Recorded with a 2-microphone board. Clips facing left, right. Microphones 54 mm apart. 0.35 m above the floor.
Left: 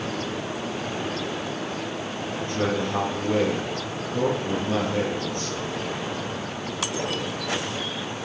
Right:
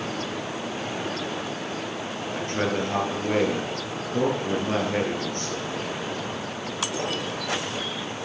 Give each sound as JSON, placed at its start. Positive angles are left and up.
{"t": 2.4, "sound": "a man speaking", "side_deg": -55, "distance_m": 6.0}